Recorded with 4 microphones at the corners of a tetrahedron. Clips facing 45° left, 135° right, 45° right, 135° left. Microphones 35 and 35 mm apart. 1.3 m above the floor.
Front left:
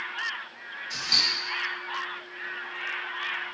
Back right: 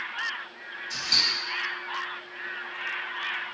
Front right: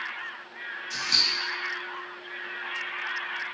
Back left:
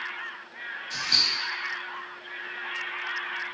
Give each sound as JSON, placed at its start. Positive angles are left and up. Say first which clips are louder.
{"t": 0.9, "sound": "scissors", "louder": "even, even", "azimuth_deg": 120, "distance_m": 1.7}